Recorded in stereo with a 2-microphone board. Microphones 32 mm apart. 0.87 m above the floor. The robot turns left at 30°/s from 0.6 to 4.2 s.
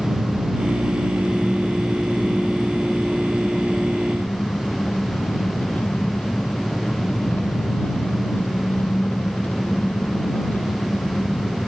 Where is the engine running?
145° right; by 11.7 s 110° left.